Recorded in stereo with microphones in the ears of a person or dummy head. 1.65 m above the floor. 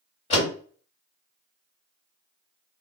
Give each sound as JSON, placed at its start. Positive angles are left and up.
{"t": 0.3, "sound": "a door slam", "side_deg": 35, "distance_m": 1.7}